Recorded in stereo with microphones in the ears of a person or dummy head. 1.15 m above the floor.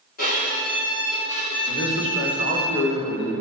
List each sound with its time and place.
0.2 s a violin: 50° left (ahead or behind), 3.5 m
1.7 s a man speaking: 65° left (ahead or behind), 2.5 m